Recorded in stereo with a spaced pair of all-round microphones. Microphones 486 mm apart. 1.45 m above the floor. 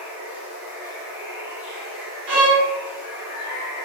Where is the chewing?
No chewing in this recording.